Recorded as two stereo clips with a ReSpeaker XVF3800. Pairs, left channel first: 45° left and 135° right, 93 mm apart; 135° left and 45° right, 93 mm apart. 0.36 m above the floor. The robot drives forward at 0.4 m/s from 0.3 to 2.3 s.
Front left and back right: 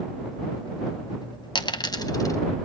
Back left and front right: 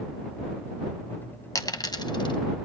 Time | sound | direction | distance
1.6 | a dropped coin | 80° left | 1.0 m